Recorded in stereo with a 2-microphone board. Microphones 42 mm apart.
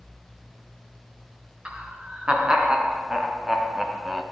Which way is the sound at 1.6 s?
25° right (ahead or behind).